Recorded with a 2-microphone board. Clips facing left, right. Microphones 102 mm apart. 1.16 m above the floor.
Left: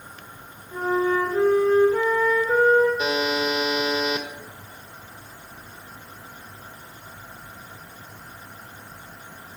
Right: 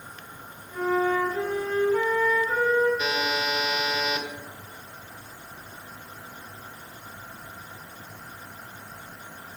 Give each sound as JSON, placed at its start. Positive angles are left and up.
{"t": 0.7, "sound": "a flute", "side_deg": 35, "distance_m": 2.0}
{"t": 3.0, "sound": "a buzzer", "side_deg": 35, "distance_m": 1.2}